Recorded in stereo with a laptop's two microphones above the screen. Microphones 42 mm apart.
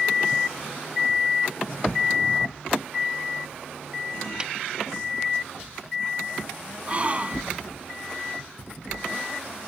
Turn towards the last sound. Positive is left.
turn(degrees=-30)  # may be behind; listen again after turning